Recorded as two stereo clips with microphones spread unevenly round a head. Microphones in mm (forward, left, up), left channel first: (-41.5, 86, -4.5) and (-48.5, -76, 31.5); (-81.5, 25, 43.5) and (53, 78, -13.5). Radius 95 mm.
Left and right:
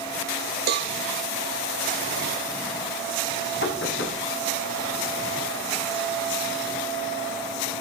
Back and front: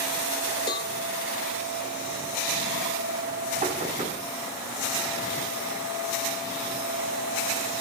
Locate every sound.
0.7 s a cowbell: 100° right, 1.1 m
3.6 s knocking: 65° left, 6.5 m